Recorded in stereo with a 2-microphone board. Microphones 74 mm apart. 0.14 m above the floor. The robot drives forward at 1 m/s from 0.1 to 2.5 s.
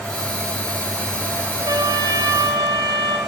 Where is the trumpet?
60° right (ahead or behind), 1.1 m.